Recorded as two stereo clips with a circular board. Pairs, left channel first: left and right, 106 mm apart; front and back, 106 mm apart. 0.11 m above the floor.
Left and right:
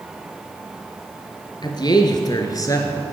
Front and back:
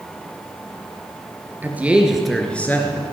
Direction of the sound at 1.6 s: 115° left.